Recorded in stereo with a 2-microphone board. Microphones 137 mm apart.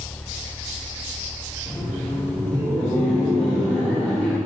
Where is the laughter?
10° left (ahead or behind), 1.1 m.